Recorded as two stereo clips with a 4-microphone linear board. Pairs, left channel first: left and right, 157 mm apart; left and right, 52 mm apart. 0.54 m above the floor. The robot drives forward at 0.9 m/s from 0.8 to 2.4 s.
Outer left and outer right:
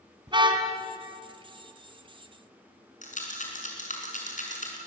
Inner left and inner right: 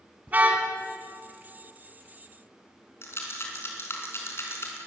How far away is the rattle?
About 4.5 m.